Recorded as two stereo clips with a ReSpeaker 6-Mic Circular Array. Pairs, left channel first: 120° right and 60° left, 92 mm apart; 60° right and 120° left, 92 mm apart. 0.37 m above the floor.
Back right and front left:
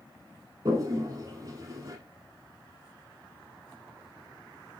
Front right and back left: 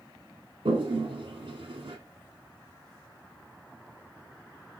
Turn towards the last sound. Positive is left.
turn(degrees=105)